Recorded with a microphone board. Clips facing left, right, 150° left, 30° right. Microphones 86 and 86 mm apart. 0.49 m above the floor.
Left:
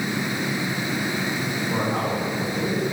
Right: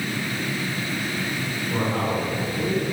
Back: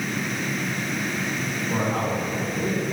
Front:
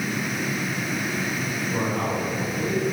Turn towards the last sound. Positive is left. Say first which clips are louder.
# right 1 dB, back 1 dB
turn(degrees=160)